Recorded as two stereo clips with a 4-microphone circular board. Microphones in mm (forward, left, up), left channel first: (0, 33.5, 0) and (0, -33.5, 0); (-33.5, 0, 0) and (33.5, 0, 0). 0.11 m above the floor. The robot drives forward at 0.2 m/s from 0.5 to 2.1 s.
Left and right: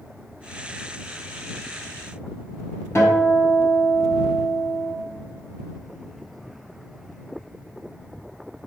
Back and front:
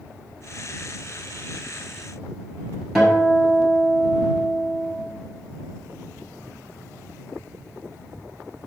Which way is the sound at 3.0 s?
95° left.